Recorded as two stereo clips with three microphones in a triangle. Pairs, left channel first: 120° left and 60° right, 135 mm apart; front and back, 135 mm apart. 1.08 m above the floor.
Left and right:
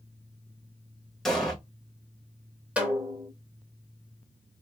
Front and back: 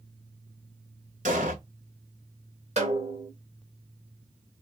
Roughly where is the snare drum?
Behind right.